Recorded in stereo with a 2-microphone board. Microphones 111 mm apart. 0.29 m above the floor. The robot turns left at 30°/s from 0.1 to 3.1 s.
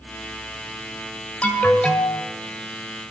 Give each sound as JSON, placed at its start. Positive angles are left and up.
{"t": 1.4, "sound": "an alarm", "side_deg": 10, "distance_m": 1.7}